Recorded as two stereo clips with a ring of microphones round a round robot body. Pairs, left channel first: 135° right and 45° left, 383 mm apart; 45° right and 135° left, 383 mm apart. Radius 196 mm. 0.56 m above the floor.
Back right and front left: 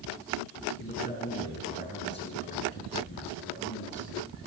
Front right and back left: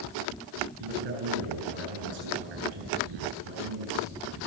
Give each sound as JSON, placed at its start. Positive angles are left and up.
{"t": 0.8, "sound": "a man speaking", "azimuth_deg": 160, "distance_m": 8.0}